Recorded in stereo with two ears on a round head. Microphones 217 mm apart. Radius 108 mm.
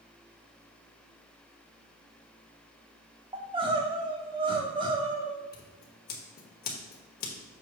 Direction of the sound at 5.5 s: 40° left (ahead or behind).